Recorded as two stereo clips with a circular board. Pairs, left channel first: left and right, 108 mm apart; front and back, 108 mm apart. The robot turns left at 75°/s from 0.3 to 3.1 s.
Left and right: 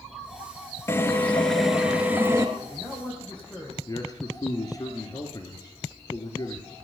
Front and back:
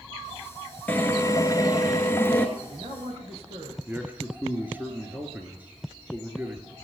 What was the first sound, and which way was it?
A drill, 55° left.